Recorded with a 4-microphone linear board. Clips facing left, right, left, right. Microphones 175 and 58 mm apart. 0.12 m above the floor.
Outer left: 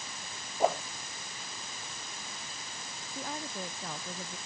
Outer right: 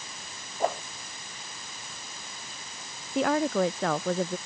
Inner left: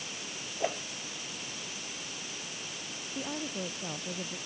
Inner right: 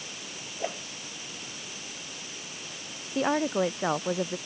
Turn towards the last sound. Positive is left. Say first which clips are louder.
# outer right 16 dB, inner right 12 dB
turn(degrees=-85)